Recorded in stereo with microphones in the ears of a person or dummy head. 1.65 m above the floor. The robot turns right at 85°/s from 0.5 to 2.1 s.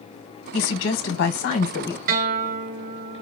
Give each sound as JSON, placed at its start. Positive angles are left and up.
{"t": 0.5, "sound": "a woman speaking", "azimuth_deg": 45, "distance_m": 1.0}
{"t": 2.1, "sound": "a guitar", "side_deg": -45, "distance_m": 0.6}